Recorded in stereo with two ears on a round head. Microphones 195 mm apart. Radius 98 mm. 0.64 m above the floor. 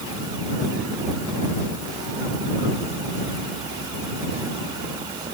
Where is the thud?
No thud in this recording.